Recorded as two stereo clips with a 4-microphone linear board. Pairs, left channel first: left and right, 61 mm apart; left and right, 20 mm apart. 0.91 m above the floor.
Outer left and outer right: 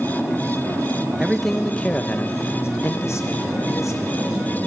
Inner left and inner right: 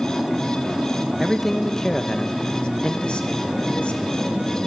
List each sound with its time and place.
1.2 s a man speaking: 10° right (ahead or behind), 1.0 m; by 4.2 s 60° left (ahead or behind), 1.8 m